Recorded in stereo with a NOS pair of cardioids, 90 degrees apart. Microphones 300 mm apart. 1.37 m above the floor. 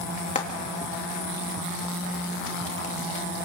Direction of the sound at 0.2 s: 25° left.